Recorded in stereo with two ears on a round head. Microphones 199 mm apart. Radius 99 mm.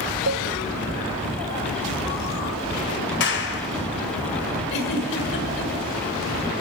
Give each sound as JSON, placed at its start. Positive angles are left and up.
{"t": 0.3, "sound": "a cowbell", "side_deg": -60, "distance_m": 0.9}
{"t": 3.2, "sound": "a clap", "side_deg": 55, "distance_m": 3.5}
{"t": 4.7, "sound": "a giggle", "side_deg": 55, "distance_m": 6.5}